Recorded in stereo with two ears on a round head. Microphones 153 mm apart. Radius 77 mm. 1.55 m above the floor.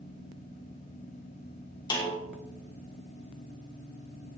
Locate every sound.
1.9 s a snare drum: 25° left (ahead or behind), 3.5 m